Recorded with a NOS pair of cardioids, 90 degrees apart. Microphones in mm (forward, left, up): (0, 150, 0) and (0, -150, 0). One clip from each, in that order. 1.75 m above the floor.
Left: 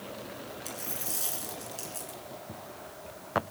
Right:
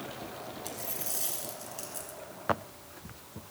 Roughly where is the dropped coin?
Ahead.